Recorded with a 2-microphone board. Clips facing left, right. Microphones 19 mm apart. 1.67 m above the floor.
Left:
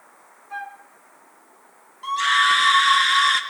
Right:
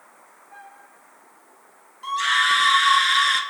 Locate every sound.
0.5 s a flute: 60° left (ahead or behind), 2 m
2.0 s a scream: 10° left (ahead or behind), 1.2 m